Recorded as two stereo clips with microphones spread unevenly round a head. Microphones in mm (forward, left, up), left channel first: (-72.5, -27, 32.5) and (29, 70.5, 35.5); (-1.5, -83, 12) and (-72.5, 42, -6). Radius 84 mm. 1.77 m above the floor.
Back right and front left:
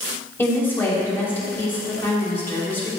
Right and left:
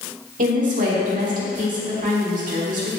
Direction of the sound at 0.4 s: 150° left.